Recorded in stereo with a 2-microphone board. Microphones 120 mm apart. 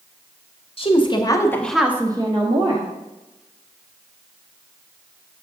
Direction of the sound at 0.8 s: 50° left (ahead or behind).